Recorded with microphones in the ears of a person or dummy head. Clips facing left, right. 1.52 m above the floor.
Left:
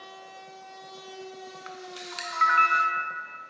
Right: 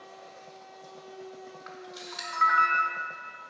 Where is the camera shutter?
25° left (ahead or behind), 0.6 m.